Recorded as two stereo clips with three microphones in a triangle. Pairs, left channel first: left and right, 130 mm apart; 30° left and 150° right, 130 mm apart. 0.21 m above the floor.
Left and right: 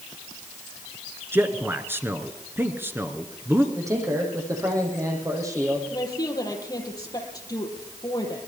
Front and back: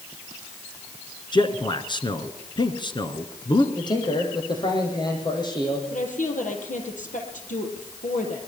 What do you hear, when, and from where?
1.3 s a man speaking: 20° right, 2.5 m
3.8 s a man speaking: 25° right, 7.5 m
5.9 s a woman speaking: 30° left, 6 m